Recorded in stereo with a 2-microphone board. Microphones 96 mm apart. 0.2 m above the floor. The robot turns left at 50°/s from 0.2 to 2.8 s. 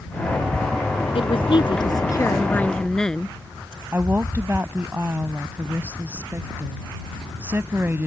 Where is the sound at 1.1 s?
90° left; by 3.4 s 10° left.